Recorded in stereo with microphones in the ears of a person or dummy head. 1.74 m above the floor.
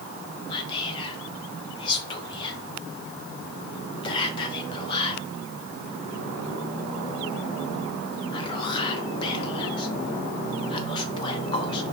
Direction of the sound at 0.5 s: 25° left (ahead or behind).